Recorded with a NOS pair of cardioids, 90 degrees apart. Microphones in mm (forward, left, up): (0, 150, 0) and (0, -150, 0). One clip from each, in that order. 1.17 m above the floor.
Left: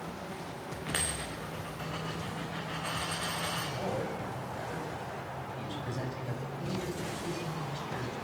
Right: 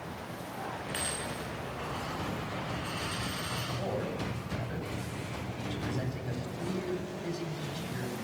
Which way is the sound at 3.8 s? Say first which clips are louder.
Even; 5° right.